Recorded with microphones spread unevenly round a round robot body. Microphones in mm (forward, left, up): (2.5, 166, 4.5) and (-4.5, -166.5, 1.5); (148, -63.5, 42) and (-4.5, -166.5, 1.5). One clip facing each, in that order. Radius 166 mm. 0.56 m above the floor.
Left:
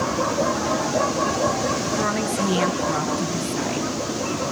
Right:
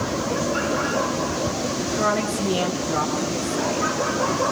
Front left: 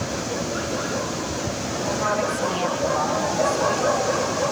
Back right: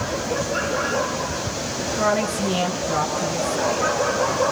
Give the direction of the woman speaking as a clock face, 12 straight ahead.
7 o'clock.